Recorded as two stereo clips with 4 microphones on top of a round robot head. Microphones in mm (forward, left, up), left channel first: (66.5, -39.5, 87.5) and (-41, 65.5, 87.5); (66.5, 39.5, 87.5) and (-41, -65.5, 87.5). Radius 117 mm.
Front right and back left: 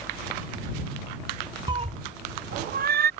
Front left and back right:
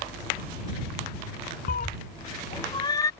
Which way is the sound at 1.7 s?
75° left.